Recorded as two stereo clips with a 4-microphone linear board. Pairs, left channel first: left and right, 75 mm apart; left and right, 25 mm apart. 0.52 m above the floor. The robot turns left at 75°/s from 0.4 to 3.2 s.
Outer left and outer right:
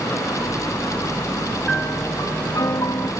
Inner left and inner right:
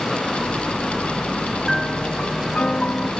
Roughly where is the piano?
Behind.